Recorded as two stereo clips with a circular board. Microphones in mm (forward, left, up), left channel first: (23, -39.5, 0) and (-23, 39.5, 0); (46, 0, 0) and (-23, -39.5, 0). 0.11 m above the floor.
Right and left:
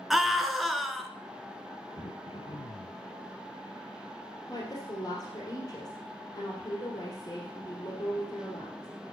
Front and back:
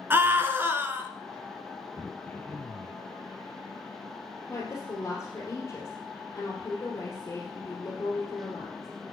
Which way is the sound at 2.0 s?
45° right.